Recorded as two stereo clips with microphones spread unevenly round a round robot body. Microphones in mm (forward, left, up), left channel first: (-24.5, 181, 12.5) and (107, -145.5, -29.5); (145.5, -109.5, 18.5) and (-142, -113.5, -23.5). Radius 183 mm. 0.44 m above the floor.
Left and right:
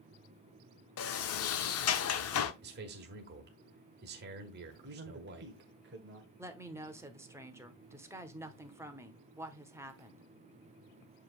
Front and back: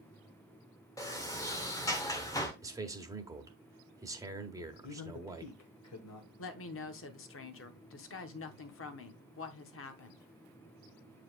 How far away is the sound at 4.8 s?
About 1.3 m.